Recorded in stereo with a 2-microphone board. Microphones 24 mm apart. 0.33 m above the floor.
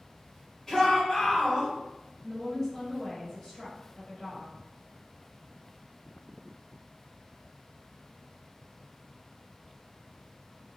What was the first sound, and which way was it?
A shout, 15° left (ahead or behind).